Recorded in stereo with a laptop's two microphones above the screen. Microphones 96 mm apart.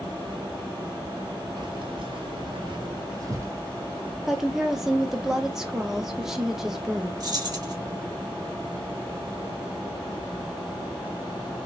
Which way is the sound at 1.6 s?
55° right (ahead or behind).